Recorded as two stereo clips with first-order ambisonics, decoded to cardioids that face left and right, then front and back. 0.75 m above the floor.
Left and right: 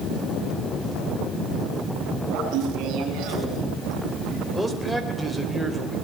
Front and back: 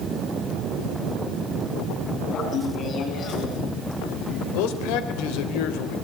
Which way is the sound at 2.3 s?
55° right.